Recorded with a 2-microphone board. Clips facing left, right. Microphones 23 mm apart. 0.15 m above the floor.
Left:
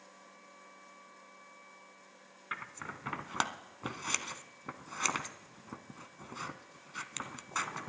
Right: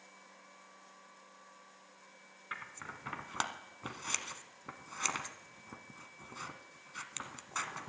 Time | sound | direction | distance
2.5 | scissors | 15° left (ahead or behind) | 0.6 m